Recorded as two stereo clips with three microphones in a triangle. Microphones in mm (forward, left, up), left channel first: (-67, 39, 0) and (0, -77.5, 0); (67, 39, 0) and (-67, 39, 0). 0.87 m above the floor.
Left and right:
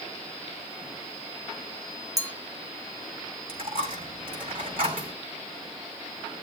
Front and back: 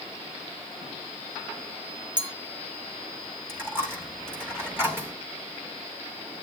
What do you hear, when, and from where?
2.2 s a clink: 125° right, 2 m
3.5 s a dropped coin: 105° right, 3 m